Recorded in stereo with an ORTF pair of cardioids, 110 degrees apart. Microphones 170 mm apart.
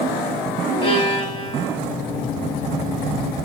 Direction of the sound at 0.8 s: 30° left.